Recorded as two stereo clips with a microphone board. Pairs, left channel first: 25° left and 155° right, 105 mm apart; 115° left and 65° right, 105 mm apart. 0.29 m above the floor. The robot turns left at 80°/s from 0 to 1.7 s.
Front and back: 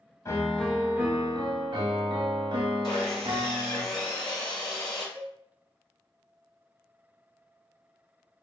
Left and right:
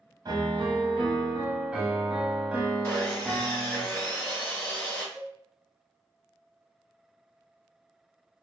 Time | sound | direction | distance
0.2 | a piano | 30° right | 0.6 m
2.8 | sawing | 50° left | 1.4 m
5.2 | a cowbell | 155° right | 0.6 m